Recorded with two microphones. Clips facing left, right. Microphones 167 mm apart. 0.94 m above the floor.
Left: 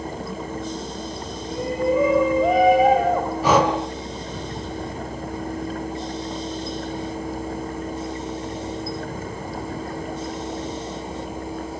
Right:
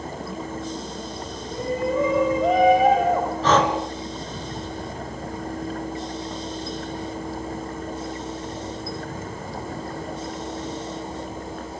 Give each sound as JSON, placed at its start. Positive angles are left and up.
{"t": 1.4, "sound": "a shout", "side_deg": 10, "distance_m": 7.0}
{"t": 3.4, "sound": "breathing", "side_deg": 10, "distance_m": 3.0}